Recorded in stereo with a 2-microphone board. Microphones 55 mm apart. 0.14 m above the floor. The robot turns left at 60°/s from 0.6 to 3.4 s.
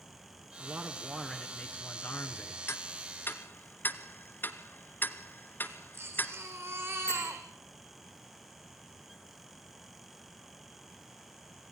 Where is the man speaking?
140° right, 1.5 m; by 2.6 s 100° left, 1.5 m.